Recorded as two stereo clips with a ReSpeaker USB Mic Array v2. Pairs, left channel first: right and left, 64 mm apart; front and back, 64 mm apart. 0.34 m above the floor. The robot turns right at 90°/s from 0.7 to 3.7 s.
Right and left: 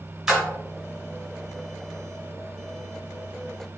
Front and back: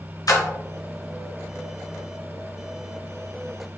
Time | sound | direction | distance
0.3 | a splash | 10° left | 1.3 m